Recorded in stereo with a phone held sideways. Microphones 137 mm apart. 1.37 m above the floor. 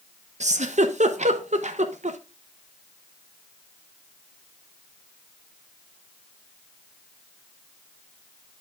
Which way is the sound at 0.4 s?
60° right (ahead or behind).